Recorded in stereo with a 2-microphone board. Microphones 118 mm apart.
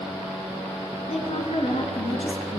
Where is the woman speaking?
60° left (ahead or behind), 2.5 m; by 2.6 s 50° left (ahead or behind), 2 m.